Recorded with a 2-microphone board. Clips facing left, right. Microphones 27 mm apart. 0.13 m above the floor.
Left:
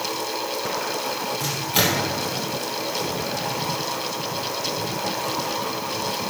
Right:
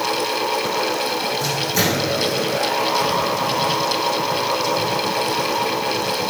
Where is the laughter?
No laughter in this recording.